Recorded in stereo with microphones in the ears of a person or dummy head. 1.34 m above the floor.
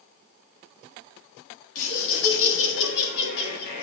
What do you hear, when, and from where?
1.8 s laughter: 75° left (ahead or behind), 3 m; by 3.8 s 55° left (ahead or behind), 2.0 m